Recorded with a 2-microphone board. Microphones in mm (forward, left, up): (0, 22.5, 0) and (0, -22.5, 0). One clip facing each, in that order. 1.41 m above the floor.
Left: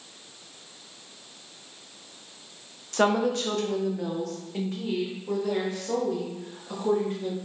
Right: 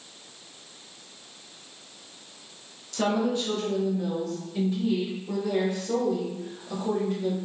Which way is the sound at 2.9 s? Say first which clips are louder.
Left 2 dB; 50° left (ahead or behind).